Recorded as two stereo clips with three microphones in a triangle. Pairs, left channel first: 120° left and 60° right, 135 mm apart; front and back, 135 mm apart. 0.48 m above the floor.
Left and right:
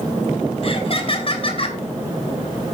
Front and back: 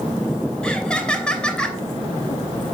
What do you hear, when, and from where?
0.6 s laughter: 85° left, 2.5 m